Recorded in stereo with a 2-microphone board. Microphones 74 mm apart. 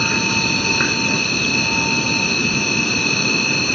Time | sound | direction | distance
0.0 | an insect | 5° left (ahead or behind) | ?